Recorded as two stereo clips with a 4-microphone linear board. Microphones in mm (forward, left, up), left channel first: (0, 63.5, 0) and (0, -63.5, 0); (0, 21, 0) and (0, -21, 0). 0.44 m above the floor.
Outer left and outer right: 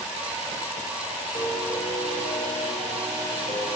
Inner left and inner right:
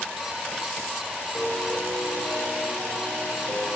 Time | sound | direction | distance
1.4 | a piano | 45° left (ahead or behind) | 2.5 m